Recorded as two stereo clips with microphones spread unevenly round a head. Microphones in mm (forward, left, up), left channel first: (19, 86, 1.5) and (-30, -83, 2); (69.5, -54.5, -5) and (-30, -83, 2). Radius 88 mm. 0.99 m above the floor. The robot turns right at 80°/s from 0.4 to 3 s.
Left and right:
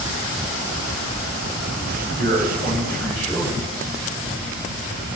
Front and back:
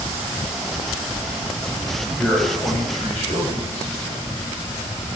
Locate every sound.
2.2 s a man speaking: 65° right, 5.5 m; by 3.9 s straight ahead, 5.5 m